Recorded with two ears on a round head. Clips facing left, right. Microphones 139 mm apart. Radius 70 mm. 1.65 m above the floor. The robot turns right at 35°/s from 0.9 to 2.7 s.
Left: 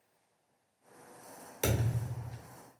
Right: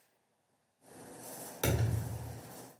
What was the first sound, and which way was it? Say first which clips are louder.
A thud: left 1 dB; 15° left (ahead or behind).